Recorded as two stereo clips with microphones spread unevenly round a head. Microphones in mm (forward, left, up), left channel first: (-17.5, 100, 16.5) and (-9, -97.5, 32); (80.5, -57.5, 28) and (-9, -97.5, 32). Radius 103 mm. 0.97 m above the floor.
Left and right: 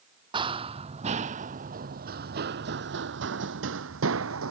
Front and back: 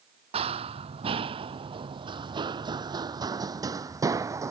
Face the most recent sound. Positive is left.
turn(degrees=-100)